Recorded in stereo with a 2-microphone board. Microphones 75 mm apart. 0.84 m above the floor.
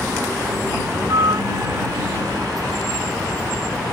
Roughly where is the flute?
Right.